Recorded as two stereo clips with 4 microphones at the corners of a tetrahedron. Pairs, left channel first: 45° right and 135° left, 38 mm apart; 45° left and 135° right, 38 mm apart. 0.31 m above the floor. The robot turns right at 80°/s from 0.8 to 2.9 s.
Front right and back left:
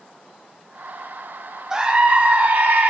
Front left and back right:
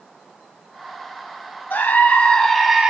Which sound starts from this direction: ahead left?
A scream, at 1.7 s.